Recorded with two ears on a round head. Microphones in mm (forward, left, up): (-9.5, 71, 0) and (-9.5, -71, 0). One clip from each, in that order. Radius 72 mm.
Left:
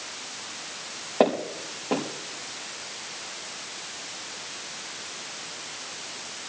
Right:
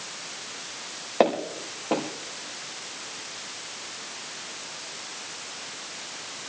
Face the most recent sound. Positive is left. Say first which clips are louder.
# even
turn(degrees=-50)  # may be behind; listen again after turning